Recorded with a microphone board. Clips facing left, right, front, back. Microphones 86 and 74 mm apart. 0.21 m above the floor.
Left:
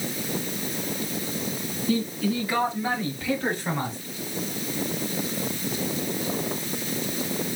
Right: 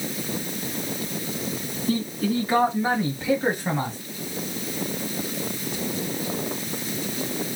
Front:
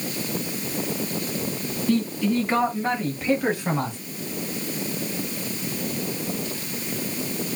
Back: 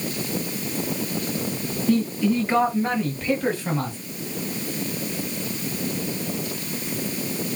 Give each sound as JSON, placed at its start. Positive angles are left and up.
{"t": 1.9, "sound": "a man speaking", "azimuth_deg": -105, "distance_m": 1.8}